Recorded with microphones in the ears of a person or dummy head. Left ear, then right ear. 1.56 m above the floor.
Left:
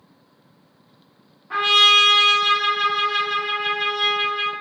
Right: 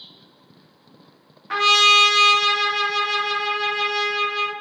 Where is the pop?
No pop in this recording.